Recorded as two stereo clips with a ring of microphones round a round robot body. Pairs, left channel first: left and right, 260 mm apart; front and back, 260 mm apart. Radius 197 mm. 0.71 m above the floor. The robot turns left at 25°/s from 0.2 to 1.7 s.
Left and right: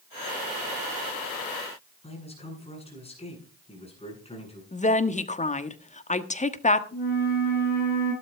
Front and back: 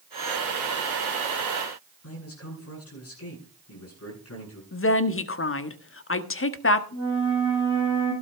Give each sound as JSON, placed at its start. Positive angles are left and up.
{"t": 2.0, "sound": "a man speaking", "azimuth_deg": 25, "distance_m": 9.0}
{"t": 4.7, "sound": "a woman speaking", "azimuth_deg": 30, "distance_m": 1.3}
{"t": 6.9, "sound": "a flute", "azimuth_deg": 40, "distance_m": 8.5}